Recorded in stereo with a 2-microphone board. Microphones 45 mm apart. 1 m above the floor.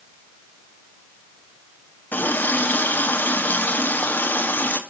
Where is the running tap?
50° left (ahead or behind), 1.0 m.